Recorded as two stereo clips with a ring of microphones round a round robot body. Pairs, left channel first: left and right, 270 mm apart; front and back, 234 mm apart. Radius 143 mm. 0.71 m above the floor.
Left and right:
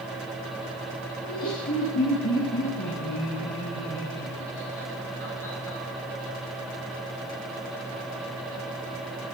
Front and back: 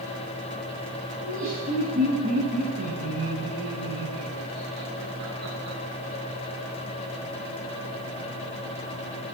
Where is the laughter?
150° left, 7 m; by 5.8 s 170° left, 10.5 m.